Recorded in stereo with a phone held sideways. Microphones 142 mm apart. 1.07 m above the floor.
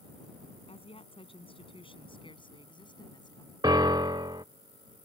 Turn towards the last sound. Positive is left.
turn(degrees=-30)  # may be behind; listen again after turning